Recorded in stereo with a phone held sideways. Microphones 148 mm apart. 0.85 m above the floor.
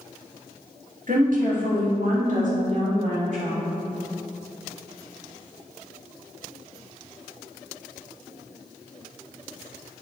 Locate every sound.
1.1 s a woman speaking: 65° right (ahead or behind), 1.7 m; by 3.6 s 55° right (ahead or behind), 3 m